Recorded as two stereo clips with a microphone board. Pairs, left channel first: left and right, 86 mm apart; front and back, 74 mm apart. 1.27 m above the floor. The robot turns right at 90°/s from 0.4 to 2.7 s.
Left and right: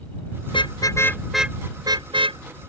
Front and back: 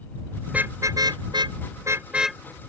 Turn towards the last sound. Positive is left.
turn(degrees=-55)